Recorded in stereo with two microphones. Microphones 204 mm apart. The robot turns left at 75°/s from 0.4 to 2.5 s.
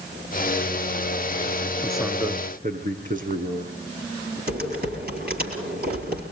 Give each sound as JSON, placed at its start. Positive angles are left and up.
{"t": 1.8, "sound": "a man speaking", "azimuth_deg": 5, "distance_m": 6.0}
{"t": 4.5, "sound": "typing on a keyboard", "side_deg": -50, "distance_m": 5.0}